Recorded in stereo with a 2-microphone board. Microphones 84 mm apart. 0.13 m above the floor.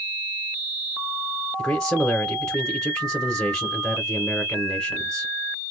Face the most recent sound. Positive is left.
turn(degrees=10)  # may be behind; listen again after turning